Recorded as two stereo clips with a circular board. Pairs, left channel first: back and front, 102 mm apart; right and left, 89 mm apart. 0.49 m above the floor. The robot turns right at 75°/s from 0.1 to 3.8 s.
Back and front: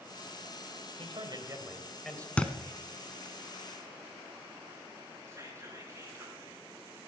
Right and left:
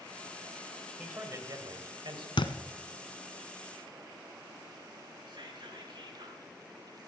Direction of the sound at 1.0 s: 15° left.